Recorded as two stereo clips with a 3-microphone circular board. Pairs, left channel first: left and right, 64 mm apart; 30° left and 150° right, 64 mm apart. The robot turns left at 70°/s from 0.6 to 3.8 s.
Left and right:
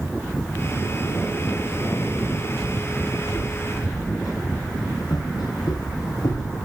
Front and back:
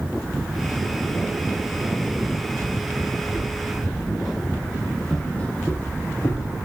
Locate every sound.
3.2 s footsteps: 170° left, 4 m; by 6.6 s 60° left, 1.8 m